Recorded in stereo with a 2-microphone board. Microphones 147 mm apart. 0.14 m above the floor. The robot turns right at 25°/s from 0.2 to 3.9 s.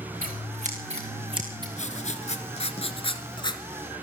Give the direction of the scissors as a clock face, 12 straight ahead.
2 o'clock.